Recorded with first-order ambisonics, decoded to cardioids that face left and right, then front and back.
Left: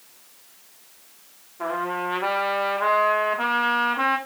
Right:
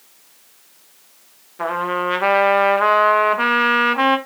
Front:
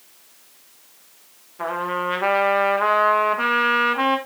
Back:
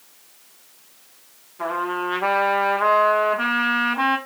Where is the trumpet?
75° right, 1.2 m.